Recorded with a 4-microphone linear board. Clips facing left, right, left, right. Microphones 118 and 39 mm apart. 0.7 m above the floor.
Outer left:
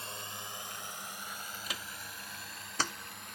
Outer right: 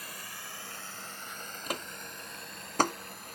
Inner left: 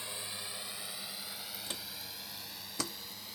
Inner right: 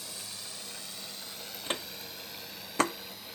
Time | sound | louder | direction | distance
0.0 | a drone | outer left 2 dB, inner left 2 dB | 25° left (ahead or behind) | ?
1.7 | footsteps | outer right 6 dB, inner right 7 dB | 50° right (ahead or behind) | ?